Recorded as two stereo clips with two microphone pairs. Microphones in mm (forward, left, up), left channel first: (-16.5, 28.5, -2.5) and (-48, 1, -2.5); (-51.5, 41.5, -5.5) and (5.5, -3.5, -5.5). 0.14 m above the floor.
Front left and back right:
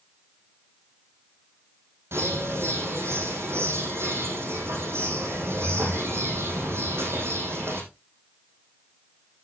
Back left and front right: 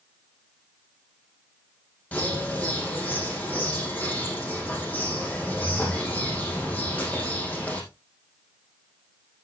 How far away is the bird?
About 4.5 m.